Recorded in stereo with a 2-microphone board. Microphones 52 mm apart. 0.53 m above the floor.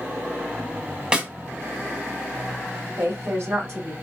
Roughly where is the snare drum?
Centre.